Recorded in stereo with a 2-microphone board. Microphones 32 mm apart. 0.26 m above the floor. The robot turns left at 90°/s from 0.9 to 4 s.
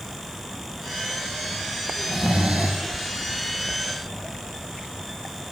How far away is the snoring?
About 9.5 m.